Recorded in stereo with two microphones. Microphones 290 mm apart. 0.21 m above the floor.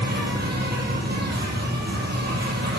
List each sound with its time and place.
0.0 s an insect: 35° right (ahead or behind), 3 m